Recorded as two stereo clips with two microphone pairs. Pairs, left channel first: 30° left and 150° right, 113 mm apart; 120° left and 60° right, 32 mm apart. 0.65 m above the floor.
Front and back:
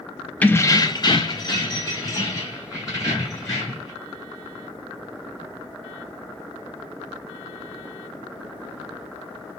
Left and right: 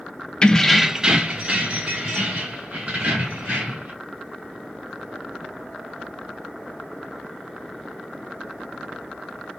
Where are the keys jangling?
95° left, 0.5 m; by 3.9 s 25° right, 3 m.